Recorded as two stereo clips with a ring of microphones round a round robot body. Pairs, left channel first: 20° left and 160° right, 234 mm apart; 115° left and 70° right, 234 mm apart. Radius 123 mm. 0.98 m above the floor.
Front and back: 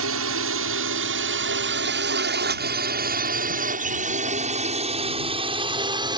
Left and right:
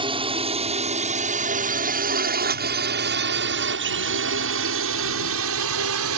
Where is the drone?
135° right; by 6.2 s 85° right.